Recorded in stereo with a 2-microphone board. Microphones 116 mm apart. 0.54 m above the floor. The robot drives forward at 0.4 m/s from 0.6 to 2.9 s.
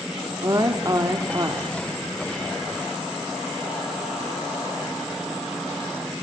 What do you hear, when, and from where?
0.4 s a woman speaking: 35° right (ahead or behind), 1.4 m; by 1.6 s 30° right (ahead or behind), 1.5 m